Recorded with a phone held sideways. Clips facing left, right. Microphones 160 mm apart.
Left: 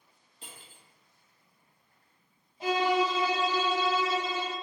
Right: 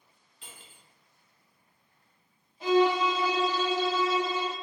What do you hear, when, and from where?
0.4 s cutlery clinking: 35° left (ahead or behind), 0.8 m
2.6 s a violin: 30° left (ahead or behind), 1.8 m